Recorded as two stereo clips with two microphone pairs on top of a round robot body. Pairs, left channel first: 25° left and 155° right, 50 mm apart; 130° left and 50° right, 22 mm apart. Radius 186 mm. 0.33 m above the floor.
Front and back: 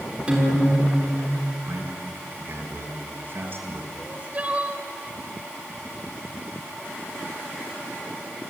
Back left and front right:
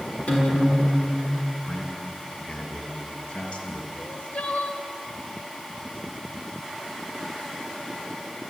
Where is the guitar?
140° left, 6 m.